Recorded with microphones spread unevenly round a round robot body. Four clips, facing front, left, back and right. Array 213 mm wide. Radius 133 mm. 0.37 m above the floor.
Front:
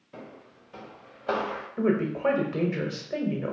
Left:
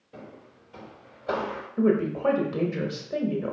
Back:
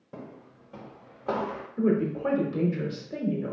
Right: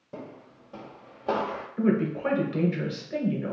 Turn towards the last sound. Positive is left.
turn(degrees=25)